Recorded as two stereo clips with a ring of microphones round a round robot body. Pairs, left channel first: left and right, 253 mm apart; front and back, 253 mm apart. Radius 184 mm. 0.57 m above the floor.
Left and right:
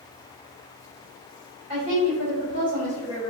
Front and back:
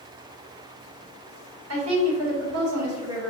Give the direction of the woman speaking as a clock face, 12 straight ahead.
5 o'clock.